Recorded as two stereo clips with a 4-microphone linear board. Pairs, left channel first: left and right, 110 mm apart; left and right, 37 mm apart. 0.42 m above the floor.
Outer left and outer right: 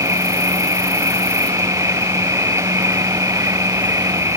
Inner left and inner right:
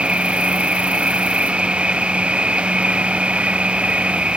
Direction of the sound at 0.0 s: 25° right (ahead or behind).